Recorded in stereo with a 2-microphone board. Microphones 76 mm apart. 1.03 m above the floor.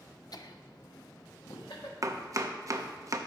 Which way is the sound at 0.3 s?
60° left (ahead or behind).